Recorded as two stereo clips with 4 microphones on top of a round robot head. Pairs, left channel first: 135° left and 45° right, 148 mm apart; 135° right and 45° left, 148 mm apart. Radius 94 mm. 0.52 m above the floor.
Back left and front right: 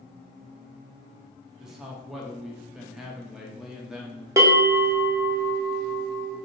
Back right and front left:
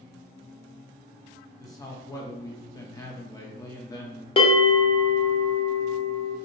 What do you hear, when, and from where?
1.6 s a man speaking: 125° right, 0.7 m
4.4 s a bell: 105° right, 0.9 m